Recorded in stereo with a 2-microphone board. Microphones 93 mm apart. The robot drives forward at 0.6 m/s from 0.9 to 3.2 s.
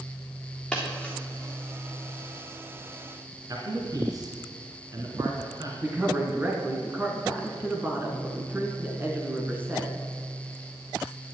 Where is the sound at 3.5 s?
45° right (ahead or behind), 2.5 m.